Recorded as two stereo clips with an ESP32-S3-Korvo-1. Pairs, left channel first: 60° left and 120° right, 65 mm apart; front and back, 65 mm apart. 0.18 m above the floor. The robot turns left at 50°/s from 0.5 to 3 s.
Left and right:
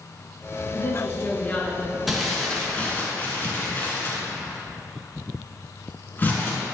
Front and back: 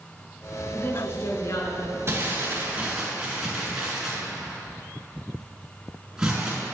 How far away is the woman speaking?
About 2.5 m.